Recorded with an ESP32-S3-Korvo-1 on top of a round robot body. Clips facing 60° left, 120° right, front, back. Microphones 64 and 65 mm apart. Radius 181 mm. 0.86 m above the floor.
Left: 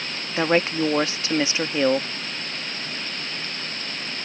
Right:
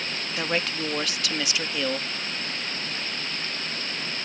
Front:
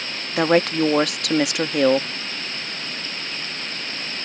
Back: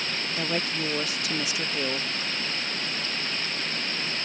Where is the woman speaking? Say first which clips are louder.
Left 8 dB, front 14 dB; straight ahead.